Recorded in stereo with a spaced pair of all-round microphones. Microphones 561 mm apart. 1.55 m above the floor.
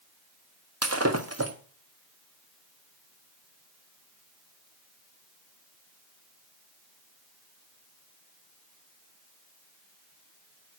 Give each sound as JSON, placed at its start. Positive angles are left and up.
{"t": 0.8, "sound": "breaking glass", "side_deg": -25, "distance_m": 1.2}